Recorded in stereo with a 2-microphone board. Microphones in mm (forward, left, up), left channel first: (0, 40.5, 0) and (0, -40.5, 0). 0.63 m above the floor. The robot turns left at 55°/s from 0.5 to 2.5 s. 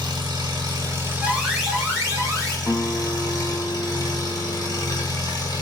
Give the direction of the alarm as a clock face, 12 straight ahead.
12 o'clock.